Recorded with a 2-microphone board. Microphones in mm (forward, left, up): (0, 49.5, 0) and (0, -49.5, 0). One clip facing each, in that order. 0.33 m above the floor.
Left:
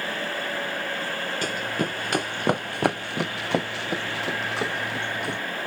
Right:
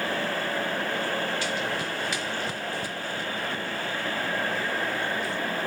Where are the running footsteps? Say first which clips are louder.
Left 2 dB; 45° left (ahead or behind); by 5.4 s 65° left (ahead or behind).